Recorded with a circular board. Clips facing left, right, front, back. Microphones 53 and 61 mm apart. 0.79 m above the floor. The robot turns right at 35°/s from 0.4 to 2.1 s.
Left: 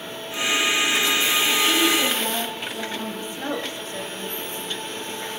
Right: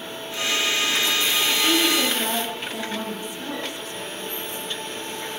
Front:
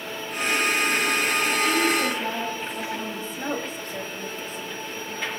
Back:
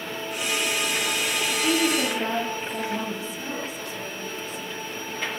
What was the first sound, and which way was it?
A woman speaking, 160° right.